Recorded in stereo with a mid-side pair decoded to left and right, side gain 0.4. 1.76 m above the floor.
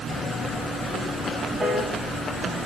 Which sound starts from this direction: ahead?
A piano, at 1.6 s.